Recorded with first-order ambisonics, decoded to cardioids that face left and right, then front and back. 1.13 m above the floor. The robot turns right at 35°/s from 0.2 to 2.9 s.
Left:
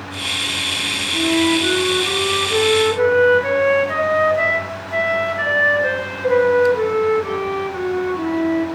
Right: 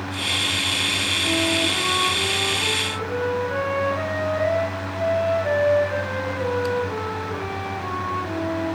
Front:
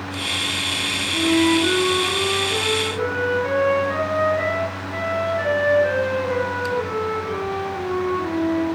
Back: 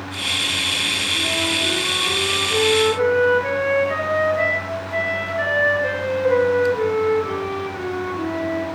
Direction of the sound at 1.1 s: 30° left.